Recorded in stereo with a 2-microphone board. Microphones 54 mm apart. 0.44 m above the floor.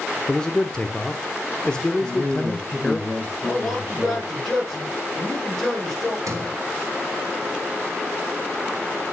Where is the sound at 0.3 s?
15° left (ahead or behind), 0.8 m.